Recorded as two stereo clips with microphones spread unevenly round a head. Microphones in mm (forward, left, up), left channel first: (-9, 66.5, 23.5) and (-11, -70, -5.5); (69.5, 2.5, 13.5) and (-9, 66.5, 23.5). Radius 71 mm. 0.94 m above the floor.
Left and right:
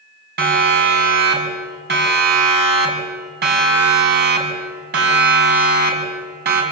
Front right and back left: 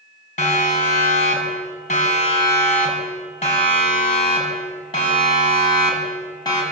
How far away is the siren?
About 6 m.